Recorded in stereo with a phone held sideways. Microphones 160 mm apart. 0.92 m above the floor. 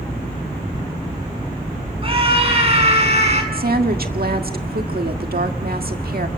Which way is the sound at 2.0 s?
35° right (ahead or behind).